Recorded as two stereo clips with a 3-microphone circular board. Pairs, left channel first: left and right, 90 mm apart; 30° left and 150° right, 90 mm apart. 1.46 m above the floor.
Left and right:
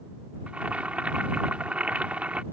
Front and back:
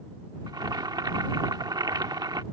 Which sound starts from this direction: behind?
Boiling, at 0.5 s.